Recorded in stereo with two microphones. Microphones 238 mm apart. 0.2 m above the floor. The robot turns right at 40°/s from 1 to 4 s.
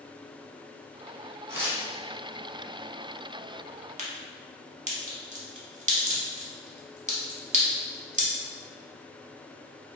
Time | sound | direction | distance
1.5 | tearing paper | 15° right (ahead or behind) | 1.1 m
4.0 | a crack | 30° right (ahead or behind) | 0.6 m